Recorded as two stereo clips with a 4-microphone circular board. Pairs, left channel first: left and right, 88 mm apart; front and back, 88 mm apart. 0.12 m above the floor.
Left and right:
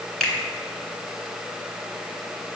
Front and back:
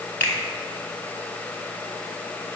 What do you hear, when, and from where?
0.2 s a finger snap: 20° left, 1.2 m